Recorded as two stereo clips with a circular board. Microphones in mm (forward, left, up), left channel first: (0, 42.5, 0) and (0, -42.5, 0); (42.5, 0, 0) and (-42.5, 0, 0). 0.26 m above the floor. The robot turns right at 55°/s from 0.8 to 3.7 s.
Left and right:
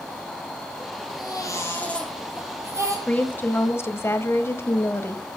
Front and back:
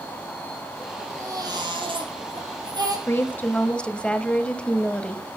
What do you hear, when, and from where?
1.1 s a baby crying: 120° left, 3 m; by 3.0 s 135° right, 3 m
3.1 s a woman speaking: 30° left, 1.0 m; by 5.2 s 65° left, 1.0 m